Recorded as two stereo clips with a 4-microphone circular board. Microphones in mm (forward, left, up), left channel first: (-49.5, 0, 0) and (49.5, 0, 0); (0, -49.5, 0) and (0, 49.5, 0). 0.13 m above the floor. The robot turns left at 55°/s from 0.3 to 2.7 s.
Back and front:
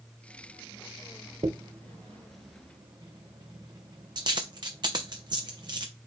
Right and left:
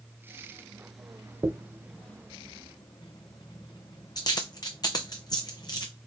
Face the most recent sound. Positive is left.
turn(degrees=-45)